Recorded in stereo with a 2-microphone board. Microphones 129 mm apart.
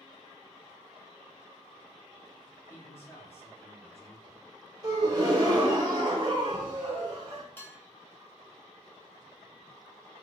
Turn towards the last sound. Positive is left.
turn(degrees=15)  # may be behind; listen again after turning